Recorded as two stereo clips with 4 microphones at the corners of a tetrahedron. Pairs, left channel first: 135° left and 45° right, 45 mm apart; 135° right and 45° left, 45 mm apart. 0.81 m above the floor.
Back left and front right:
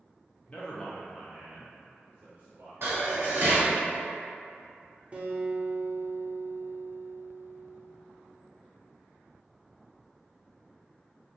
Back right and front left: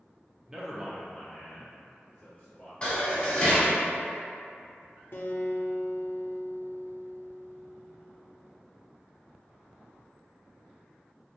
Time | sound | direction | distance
0.5 | a man speaking | 105° left | 0.7 m
2.8 | dishes clattering | 70° right | 1.3 m
5.1 | a guitar | 105° right | 0.7 m